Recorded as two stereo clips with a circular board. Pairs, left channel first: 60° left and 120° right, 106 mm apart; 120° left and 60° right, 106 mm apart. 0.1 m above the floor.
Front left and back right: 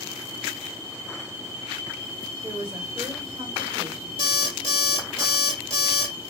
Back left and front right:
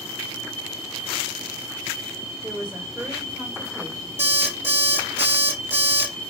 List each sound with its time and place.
2.4 s a woman speaking: 115° right, 3 m
4.2 s an alarm clock: 130° right, 2 m